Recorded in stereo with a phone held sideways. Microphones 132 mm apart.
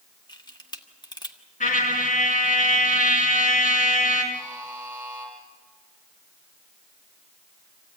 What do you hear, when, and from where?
0.3 s a camera shutter: 35° left (ahead or behind), 1.3 m
1.6 s a trumpet: 80° left, 5.5 m
4.3 s a buzzer: 10° right (ahead or behind), 8.5 m